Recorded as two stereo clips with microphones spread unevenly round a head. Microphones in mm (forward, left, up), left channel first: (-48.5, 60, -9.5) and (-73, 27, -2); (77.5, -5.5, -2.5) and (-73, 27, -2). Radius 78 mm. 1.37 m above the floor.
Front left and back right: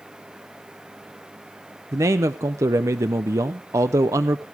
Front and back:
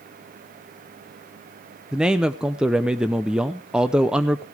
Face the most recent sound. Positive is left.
turn(degrees=-105)